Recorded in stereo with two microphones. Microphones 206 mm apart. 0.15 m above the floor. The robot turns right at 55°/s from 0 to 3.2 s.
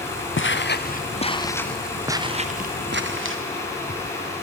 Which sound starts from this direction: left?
Footsteps, at 0.4 s.